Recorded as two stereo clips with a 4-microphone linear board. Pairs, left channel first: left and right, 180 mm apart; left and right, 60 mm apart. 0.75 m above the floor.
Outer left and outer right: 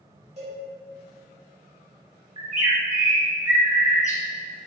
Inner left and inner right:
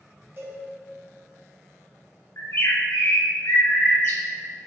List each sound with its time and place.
0.4 s a cowbell: 40° right (ahead or behind), 2.0 m
2.4 s a bird: 40° left (ahead or behind), 0.7 m